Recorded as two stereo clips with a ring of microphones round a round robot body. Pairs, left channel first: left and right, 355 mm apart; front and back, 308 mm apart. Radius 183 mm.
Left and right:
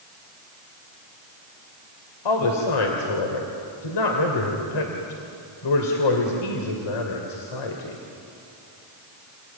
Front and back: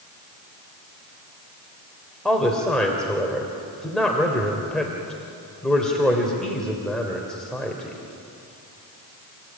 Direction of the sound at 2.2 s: 90° left.